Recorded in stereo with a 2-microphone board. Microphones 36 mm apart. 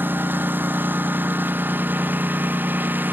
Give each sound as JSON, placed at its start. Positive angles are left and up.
{"t": 0.0, "sound": "a lawn mower", "side_deg": -65}